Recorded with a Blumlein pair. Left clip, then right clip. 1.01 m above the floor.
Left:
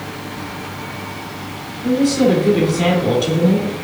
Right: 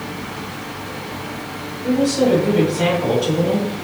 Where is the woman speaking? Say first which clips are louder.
Left 1 dB; 20° left, 2.5 m.